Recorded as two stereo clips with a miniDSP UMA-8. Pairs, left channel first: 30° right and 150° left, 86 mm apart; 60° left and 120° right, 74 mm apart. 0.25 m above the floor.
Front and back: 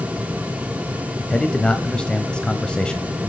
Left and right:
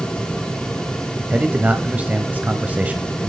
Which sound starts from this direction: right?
A man speaking, at 1.3 s.